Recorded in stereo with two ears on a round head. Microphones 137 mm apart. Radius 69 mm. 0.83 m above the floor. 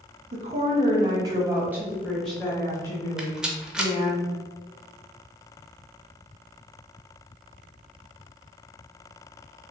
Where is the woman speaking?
50° right (ahead or behind), 1.2 m; by 4.2 s 35° left (ahead or behind), 1.7 m.